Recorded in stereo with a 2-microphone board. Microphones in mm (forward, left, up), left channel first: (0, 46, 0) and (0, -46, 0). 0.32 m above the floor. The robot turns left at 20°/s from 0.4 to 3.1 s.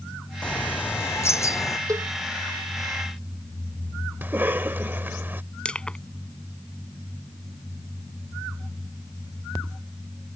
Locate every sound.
0.4 s a bird: 15° left (ahead or behind); by 1.8 s 40° left (ahead or behind)
1.9 s a cowbell: 40° right (ahead or behind); by 2.1 s 35° right (ahead or behind)
4.2 s a cough: 25° right (ahead or behind)
5.7 s crushing: 10° left (ahead or behind)